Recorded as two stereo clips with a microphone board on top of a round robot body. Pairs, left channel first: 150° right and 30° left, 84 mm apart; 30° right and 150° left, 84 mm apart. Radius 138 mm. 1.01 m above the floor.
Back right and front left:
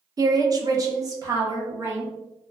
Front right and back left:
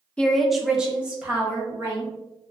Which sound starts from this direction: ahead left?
A woman speaking, at 0.2 s.